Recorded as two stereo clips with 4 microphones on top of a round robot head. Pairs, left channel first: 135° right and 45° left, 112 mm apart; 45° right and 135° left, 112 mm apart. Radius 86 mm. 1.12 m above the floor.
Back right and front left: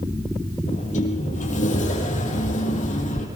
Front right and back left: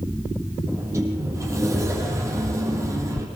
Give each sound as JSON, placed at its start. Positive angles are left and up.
{"t": 0.7, "sound": "a sliding door", "azimuth_deg": -155, "distance_m": 6.0}